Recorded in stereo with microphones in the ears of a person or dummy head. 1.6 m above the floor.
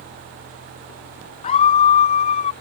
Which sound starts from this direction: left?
A scream, at 1.4 s.